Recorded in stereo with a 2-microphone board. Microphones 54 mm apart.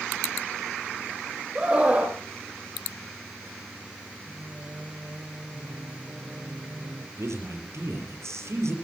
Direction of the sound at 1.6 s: 20° right (ahead or behind).